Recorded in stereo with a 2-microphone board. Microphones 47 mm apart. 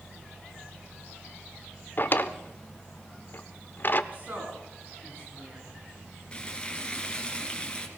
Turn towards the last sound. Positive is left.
turn(degrees=25)  # may be behind; listen again after turning